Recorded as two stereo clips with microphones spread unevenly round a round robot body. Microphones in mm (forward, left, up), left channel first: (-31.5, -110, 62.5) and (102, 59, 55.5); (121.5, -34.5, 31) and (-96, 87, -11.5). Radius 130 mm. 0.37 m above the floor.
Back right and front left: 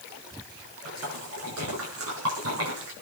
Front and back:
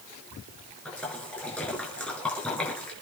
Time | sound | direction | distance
0.8 | a splash | 60° left | 6.5 m